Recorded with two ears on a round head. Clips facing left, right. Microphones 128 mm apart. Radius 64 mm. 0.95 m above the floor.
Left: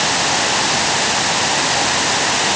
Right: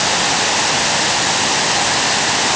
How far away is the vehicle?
I don't hear a vehicle.